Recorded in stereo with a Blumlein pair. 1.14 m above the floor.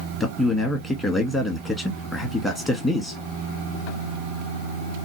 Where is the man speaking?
10° left, 1.1 m.